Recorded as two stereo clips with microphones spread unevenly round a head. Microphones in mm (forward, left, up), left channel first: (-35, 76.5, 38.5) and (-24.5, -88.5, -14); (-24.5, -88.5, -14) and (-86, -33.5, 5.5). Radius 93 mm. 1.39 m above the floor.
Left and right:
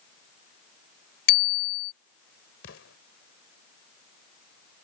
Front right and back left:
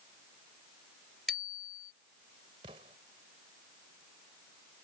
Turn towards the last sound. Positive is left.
turn(degrees=100)